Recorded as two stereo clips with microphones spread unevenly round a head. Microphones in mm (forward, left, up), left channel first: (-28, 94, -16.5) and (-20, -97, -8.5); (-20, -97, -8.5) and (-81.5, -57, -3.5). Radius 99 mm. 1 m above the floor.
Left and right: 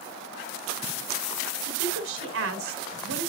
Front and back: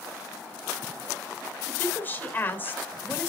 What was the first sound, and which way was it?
A woman speaking, 95° right.